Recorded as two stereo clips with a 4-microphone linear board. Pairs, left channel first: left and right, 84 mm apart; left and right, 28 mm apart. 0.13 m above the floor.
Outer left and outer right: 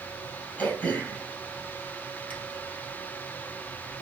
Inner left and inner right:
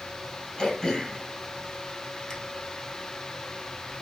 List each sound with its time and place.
0.6 s throat clearing: 20° left (ahead or behind), 1.5 m